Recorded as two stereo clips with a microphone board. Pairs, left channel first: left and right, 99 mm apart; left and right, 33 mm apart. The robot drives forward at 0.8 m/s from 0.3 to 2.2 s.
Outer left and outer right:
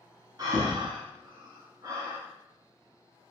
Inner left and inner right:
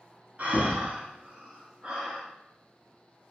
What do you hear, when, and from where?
0.4 s breathing: 45° right (ahead or behind), 0.9 m; by 2.2 s 30° right (ahead or behind), 1.2 m